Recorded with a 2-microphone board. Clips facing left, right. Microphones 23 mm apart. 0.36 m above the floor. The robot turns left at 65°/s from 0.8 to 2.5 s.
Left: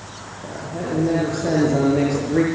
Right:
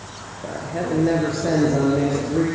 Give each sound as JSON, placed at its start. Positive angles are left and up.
{"t": 0.4, "sound": "a man speaking", "azimuth_deg": -130, "distance_m": 6.5}